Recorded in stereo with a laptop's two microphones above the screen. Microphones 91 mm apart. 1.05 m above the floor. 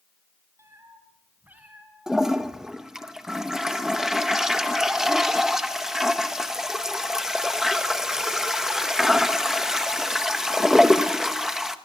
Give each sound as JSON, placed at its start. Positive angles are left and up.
{"t": 0.6, "sound": "a cat meowing", "side_deg": -30, "distance_m": 4.0}
{"t": 2.1, "sound": "a toilet flushing", "side_deg": -5, "distance_m": 1.2}